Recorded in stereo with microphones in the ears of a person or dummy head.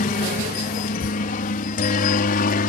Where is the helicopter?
45° left (ahead or behind).